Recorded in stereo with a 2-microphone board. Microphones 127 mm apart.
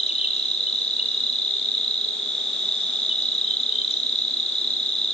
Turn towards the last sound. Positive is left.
turn(degrees=50)  # may be behind; listen again after turning